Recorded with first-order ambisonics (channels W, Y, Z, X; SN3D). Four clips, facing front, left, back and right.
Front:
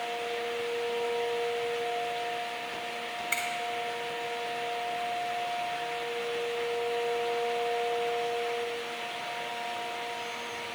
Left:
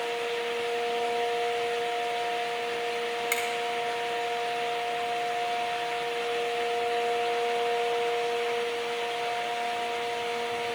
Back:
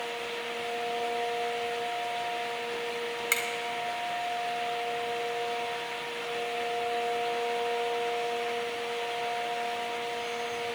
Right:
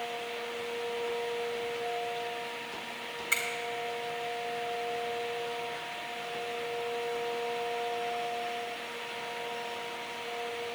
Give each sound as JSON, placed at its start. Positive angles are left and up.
{"t": 3.3, "sound": "a finger snap", "azimuth_deg": 155, "distance_m": 2.0}